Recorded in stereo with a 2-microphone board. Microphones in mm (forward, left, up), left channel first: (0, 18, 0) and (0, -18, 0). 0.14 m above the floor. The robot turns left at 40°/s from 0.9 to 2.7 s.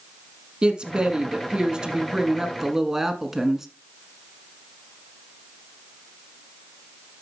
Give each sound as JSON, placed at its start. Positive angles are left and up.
{"t": 0.6, "sound": "a woman speaking", "side_deg": -30, "distance_m": 1.5}